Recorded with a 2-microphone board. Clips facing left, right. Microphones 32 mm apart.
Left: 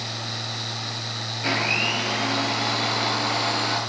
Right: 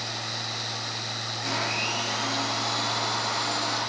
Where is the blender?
45° left (ahead or behind), 5 m.